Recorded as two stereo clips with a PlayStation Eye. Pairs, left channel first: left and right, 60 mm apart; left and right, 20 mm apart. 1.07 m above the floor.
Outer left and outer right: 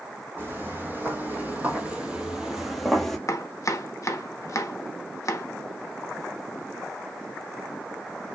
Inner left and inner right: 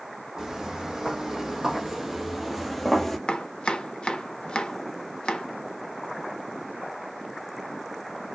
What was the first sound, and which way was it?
Footsteps, 35° right (ahead or behind).